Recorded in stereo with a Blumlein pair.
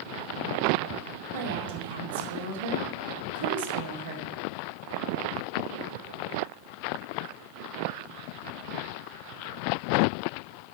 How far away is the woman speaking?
About 2 m.